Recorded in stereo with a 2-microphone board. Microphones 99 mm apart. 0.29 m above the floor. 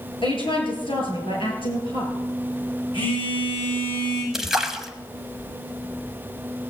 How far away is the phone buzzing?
About 5.5 m.